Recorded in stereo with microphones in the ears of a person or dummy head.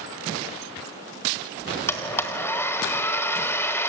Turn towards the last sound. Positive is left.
turn(degrees=10)  # may be behind; listen again after turning